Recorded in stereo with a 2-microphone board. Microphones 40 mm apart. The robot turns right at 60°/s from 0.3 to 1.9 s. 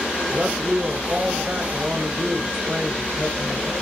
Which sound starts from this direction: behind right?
A man speaking, at 0.3 s.